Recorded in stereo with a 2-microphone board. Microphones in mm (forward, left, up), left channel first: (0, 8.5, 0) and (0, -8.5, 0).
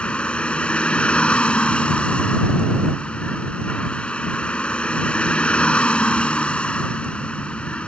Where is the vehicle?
80° left.